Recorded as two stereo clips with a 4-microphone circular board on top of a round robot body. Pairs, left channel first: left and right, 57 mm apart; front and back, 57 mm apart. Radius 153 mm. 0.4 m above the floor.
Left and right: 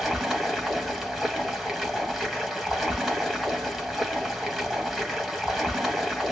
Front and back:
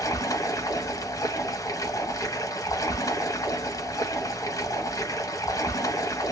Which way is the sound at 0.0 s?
Straight ahead.